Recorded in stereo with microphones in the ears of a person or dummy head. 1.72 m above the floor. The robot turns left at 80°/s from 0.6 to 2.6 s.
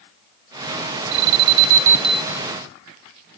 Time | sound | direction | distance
1.1 | an alarm | 55° right (ahead or behind) | 1.1 m